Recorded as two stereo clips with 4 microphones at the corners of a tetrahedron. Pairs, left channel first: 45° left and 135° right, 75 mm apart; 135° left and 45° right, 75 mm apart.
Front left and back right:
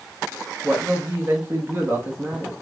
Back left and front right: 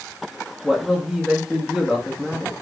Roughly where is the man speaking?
Behind right.